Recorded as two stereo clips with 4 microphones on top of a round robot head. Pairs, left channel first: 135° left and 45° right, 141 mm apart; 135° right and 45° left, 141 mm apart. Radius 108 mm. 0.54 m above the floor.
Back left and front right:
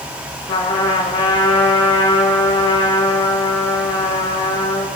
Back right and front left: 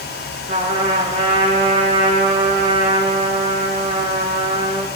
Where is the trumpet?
80° left, 7.5 m.